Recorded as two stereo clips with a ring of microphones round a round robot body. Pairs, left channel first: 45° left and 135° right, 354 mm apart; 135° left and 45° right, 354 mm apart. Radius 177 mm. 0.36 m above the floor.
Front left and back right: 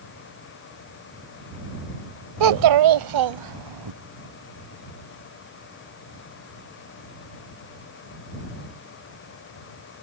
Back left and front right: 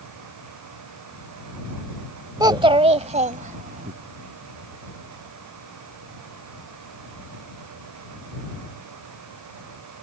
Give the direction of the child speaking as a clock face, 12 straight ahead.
4 o'clock.